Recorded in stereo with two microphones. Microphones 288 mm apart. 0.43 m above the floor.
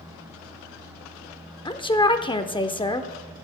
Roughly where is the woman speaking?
Centre.